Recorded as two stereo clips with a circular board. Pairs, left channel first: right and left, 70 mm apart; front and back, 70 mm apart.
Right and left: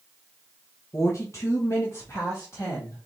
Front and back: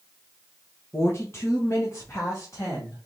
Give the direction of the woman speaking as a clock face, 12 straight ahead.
2 o'clock.